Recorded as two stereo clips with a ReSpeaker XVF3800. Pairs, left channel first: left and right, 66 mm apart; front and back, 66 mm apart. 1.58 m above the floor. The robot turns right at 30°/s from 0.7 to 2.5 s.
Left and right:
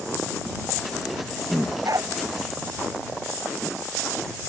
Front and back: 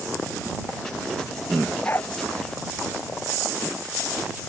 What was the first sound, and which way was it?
A dog barking, 60° right.